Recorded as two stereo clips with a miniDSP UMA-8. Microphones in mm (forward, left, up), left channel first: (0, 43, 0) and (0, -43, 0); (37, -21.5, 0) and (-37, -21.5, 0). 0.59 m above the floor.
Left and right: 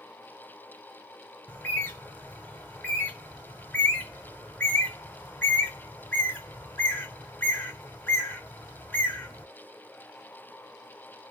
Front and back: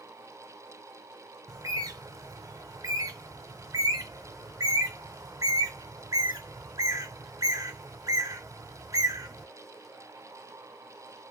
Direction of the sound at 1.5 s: 155° left.